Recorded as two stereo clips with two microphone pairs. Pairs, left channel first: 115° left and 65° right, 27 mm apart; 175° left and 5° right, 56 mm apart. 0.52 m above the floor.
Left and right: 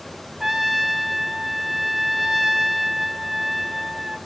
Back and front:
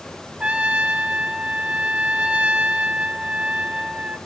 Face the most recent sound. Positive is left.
turn(degrees=-10)